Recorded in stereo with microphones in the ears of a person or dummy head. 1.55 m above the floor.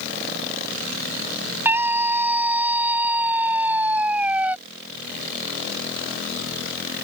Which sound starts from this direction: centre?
A scream, at 1.6 s.